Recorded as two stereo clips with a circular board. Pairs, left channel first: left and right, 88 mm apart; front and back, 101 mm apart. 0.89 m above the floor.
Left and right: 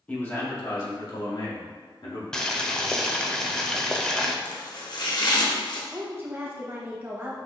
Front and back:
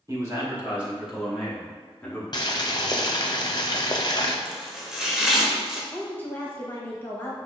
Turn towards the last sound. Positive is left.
turn(degrees=-50)